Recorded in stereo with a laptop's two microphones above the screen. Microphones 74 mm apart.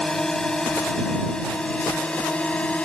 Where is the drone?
10° left (ahead or behind); by 2.9 s 15° left (ahead or behind).